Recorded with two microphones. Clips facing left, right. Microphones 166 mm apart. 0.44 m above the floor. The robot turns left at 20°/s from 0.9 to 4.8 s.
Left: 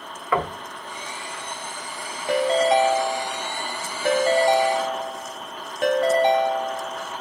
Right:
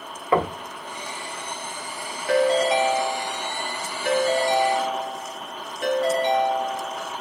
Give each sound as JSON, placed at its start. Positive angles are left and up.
{"t": 0.3, "sound": "knocking", "side_deg": -25, "distance_m": 0.8}
{"t": 2.3, "sound": "a ringtone", "azimuth_deg": 155, "distance_m": 1.4}